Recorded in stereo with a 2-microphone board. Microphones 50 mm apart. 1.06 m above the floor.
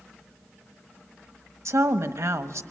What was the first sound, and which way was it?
A woman speaking, 75° right (ahead or behind).